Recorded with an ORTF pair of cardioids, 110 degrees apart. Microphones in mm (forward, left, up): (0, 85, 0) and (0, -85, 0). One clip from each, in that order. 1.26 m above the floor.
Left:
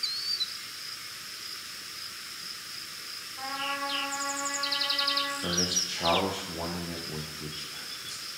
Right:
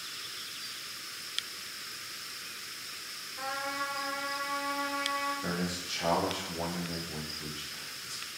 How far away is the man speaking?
About 0.5 m.